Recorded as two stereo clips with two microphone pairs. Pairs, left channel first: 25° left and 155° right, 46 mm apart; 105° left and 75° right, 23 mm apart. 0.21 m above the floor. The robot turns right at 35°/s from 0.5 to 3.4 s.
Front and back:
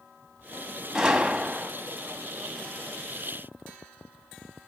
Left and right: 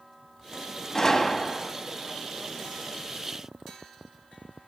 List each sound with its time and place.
0.9 s a gunshot: 140° left, 1.6 m; by 1.7 s 170° left, 1.6 m